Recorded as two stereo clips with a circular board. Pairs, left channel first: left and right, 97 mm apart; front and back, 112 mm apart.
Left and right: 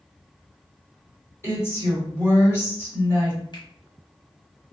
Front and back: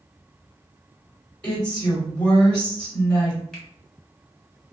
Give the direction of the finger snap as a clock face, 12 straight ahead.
9 o'clock.